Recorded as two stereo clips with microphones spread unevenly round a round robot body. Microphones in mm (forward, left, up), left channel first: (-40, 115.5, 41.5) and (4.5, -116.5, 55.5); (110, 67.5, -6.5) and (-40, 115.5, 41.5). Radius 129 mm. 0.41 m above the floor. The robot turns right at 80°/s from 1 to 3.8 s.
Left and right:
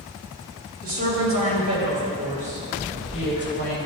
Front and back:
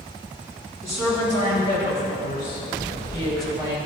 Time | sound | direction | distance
0.8 | a woman speaking | 130° right | 2.5 m